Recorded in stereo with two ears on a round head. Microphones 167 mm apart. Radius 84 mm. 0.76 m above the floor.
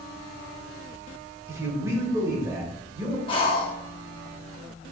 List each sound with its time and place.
1.5 s a man speaking: 15° right (ahead or behind), 2.5 m
3.3 s breathing: 25° left (ahead or behind), 1.4 m